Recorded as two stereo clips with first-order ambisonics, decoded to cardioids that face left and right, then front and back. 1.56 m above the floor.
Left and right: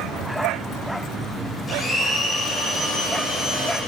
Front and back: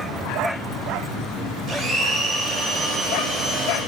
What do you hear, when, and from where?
1.7 s a blender: 155° left, 1.5 m